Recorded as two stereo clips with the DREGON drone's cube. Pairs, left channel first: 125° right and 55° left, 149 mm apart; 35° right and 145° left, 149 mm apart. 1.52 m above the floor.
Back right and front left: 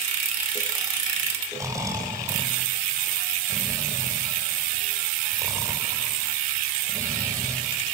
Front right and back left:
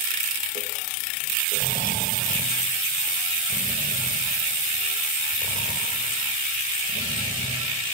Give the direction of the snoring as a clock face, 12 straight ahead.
12 o'clock.